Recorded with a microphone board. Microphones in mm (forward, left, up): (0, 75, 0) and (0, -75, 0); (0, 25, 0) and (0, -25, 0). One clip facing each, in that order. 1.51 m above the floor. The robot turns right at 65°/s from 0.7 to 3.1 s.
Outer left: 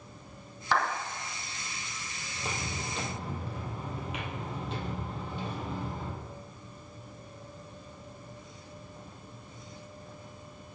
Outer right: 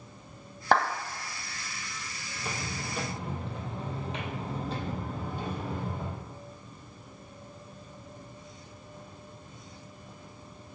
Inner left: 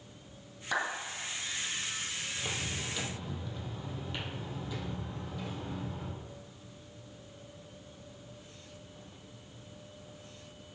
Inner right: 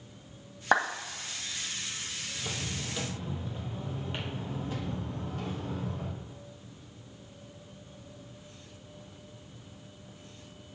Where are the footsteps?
30° left (ahead or behind), 2.5 m; by 6.2 s 55° right (ahead or behind), 3 m.